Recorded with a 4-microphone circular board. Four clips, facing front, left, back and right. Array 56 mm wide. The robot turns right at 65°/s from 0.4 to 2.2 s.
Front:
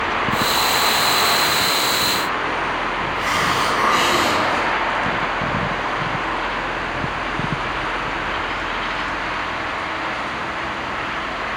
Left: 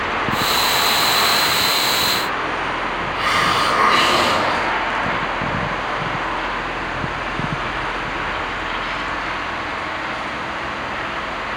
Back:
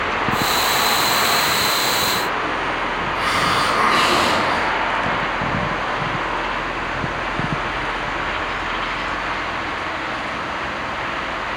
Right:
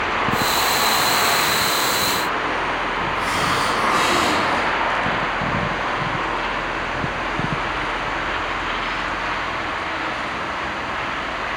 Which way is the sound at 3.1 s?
100° left.